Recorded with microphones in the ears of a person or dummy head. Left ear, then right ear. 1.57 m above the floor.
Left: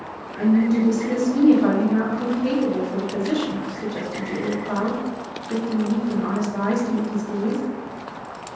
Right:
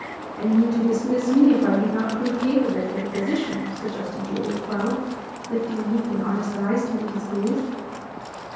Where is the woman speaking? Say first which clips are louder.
Left 1 dB; 75° left (ahead or behind), 1.5 m.